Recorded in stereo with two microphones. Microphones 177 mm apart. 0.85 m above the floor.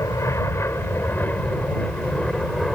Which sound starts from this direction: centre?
An aircraft, at 0.0 s.